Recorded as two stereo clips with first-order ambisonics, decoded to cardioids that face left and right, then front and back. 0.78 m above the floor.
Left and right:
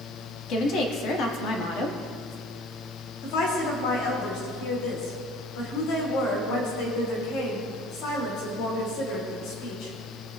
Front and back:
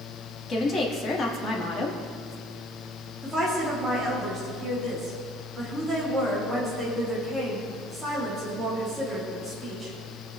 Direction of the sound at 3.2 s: 95° left.